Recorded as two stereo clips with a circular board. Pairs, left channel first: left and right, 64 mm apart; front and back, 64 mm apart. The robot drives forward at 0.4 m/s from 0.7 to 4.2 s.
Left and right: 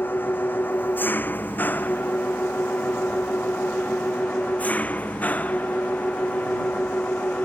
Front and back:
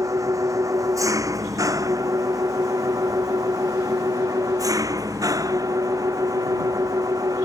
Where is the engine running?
150° left; by 7.5 s 155° left.